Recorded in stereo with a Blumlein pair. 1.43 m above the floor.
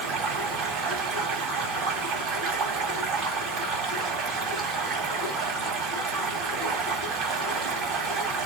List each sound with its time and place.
0.0 s running water: 40° right, 2 m